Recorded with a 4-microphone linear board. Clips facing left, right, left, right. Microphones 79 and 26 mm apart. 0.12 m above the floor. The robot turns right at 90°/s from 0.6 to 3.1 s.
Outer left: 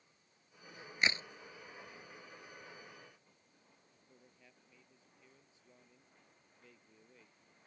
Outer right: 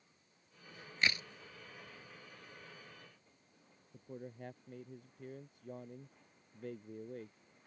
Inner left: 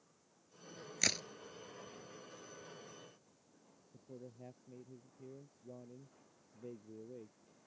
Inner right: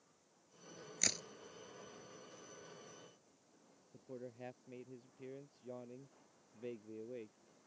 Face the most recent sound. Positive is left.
turn(degrees=-55)  # may be behind; listen again after turning